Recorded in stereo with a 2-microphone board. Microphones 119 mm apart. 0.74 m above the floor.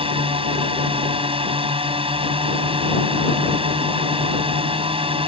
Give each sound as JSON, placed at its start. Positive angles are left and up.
{"t": 0.0, "sound": "a drone", "side_deg": -55}